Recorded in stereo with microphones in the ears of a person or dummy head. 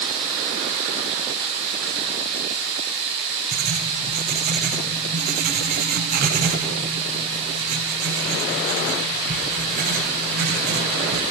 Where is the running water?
40° right (ahead or behind), 1.4 m.